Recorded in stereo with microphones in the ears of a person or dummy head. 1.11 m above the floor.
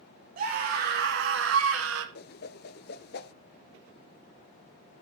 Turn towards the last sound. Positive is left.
turn(degrees=50)  # may be behind; listen again after turning